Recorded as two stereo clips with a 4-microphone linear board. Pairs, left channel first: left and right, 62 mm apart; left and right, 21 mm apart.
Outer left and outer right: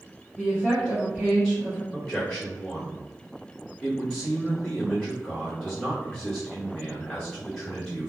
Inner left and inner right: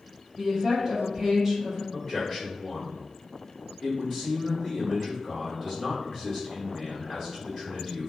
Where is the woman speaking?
5° left (ahead or behind), 0.9 m.